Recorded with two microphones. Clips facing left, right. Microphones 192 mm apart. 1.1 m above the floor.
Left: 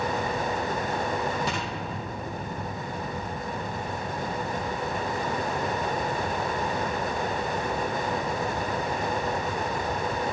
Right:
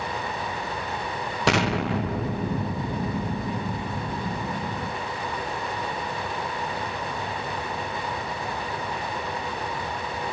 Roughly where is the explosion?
Right.